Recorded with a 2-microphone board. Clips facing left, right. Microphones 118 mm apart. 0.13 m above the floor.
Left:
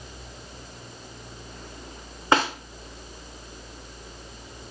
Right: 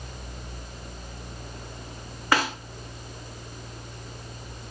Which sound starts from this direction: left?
A snare drum, at 2.3 s.